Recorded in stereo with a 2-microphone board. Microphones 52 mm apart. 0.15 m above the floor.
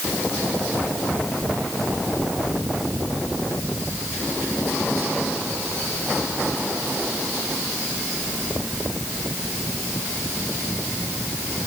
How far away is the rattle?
I don't hear a rattle.